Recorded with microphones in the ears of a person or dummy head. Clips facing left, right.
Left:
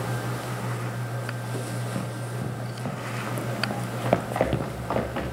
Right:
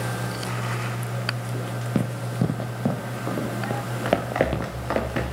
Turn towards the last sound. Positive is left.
turn(degrees=-30)  # may be behind; listen again after turning